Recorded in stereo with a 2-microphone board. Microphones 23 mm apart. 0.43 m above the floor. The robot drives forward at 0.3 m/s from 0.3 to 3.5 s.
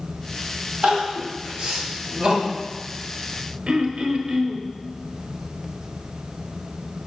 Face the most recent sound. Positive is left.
turn(degrees=-65)  # may be behind; listen again after turning